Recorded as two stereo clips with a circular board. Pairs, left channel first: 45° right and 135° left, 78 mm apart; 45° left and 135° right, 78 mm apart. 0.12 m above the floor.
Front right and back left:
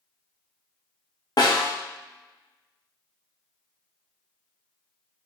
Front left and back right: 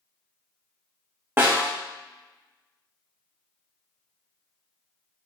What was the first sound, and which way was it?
A snare drum, 75° right.